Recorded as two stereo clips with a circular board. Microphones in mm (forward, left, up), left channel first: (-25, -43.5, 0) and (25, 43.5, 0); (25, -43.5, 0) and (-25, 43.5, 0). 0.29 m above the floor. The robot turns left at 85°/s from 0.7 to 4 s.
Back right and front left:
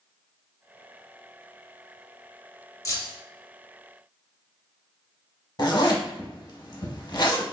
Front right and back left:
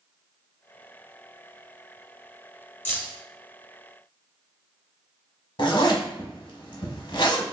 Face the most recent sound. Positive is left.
turn(degrees=-85)